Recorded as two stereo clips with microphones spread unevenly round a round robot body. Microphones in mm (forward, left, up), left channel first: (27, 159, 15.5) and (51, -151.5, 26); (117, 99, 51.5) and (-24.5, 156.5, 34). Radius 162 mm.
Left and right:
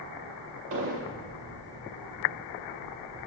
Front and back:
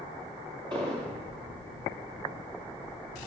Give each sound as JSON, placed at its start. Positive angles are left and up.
{"t": 0.7, "sound": "an explosion", "azimuth_deg": -140, "distance_m": 0.6}